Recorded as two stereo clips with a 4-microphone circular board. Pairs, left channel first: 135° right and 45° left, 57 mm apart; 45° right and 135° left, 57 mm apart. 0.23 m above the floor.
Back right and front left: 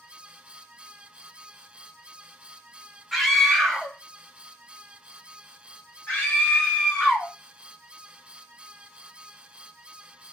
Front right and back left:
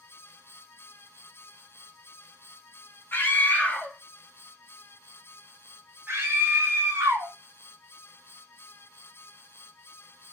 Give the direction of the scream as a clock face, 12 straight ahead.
2 o'clock.